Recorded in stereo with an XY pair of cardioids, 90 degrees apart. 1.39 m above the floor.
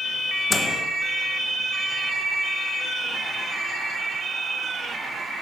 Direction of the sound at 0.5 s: 35° left.